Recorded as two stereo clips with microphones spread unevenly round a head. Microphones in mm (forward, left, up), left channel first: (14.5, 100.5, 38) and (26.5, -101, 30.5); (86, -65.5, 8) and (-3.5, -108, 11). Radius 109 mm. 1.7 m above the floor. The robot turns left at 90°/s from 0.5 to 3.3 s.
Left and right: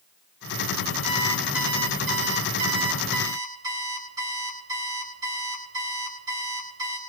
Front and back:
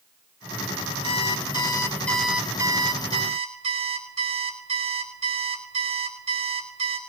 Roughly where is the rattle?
No rattle in this recording.